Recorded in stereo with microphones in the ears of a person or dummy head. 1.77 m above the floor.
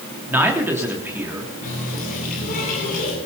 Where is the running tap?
50° left (ahead or behind), 10 m.